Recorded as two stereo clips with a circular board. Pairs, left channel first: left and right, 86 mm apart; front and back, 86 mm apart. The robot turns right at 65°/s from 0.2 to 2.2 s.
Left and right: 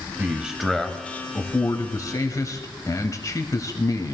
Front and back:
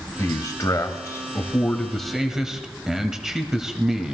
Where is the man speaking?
30° right, 1.1 m; by 4.2 s 100° left, 1.1 m.